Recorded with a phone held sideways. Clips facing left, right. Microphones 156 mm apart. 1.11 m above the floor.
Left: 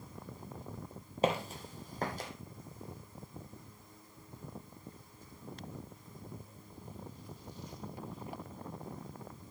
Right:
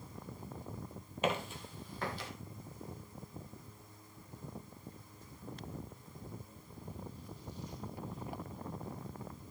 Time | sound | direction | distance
1.2 | footsteps | 35° left (ahead or behind) | 1.4 m